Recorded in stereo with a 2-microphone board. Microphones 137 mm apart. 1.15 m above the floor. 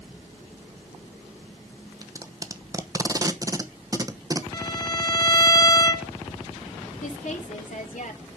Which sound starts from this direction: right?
Tape being pulled, at 2.0 s.